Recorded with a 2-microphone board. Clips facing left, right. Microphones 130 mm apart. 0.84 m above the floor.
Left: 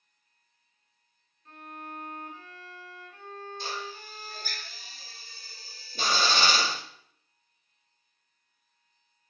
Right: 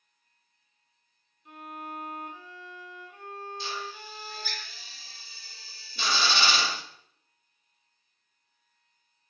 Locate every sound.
1.4 s a violin: 15° right (ahead or behind), 1.3 m
3.6 s a drill: 45° left (ahead or behind), 1.1 m